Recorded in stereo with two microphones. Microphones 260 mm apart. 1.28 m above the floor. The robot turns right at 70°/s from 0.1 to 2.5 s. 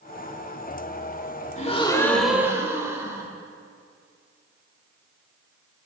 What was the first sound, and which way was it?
A gasp, 130° left.